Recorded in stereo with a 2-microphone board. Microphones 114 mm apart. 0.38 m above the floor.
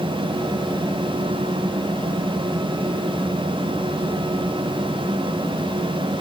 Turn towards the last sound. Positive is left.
No sound to turn to.